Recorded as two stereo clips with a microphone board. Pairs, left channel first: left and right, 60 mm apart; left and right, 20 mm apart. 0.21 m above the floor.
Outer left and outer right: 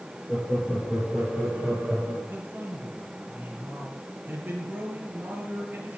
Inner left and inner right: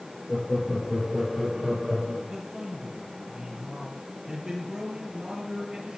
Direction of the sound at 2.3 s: 35° right (ahead or behind).